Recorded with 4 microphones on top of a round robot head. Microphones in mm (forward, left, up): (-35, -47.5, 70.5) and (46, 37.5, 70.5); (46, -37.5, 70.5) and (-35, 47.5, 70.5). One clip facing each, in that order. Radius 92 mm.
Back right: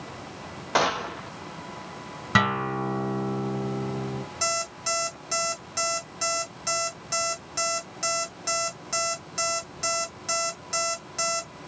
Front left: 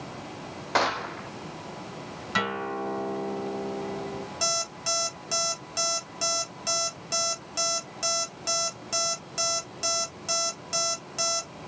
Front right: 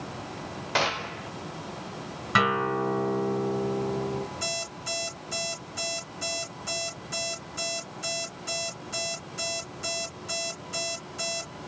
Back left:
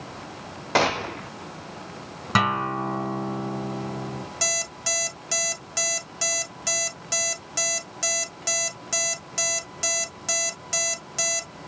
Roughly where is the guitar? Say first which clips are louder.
Back right 5 dB, back left 1 dB; behind.